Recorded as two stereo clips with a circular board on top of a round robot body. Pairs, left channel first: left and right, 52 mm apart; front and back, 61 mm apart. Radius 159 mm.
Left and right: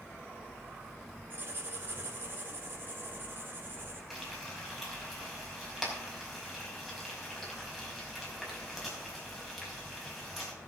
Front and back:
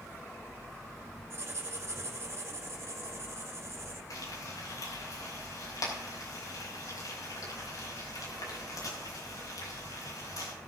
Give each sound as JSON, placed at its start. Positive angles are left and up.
{"t": 1.3, "sound": "writing", "azimuth_deg": -135, "distance_m": 3.0}
{"t": 4.1, "sound": "frying", "azimuth_deg": -5, "distance_m": 5.0}